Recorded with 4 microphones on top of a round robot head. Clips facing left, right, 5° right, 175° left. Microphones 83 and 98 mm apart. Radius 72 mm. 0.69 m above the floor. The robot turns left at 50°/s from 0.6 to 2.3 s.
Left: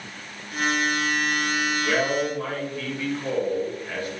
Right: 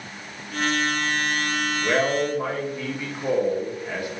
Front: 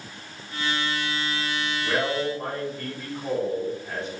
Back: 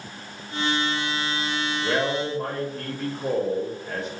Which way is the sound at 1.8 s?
140° right.